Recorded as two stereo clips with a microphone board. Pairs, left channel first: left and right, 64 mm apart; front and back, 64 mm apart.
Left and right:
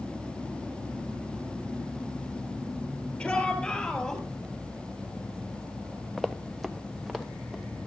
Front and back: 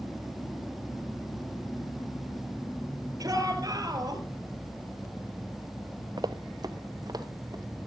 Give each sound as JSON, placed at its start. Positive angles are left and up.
{"t": 3.2, "sound": "a shout", "azimuth_deg": 160, "distance_m": 4.5}
{"t": 6.2, "sound": "running footsteps", "azimuth_deg": 180, "distance_m": 0.6}